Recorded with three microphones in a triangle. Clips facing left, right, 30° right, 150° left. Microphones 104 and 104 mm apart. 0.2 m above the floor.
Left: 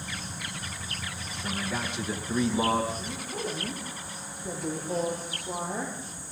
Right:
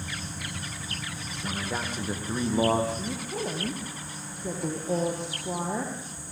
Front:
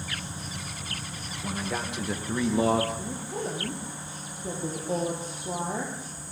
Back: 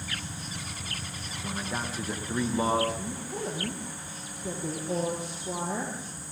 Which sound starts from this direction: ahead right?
A man speaking, at 1.4 s.